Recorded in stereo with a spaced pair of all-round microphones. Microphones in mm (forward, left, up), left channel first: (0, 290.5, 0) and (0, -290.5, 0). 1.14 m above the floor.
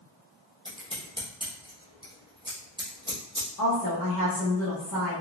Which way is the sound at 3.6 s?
35° left (ahead or behind).